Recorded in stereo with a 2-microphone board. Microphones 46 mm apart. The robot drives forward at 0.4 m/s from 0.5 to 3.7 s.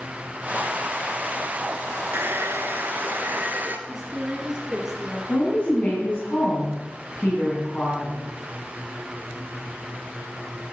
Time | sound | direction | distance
2.1 | a hair dryer | 60° right (ahead or behind) | 1.2 m
3.9 | a woman speaking | 10° right (ahead or behind) | 9.5 m
5.3 | a woman speaking | 30° left (ahead or behind) | 4.5 m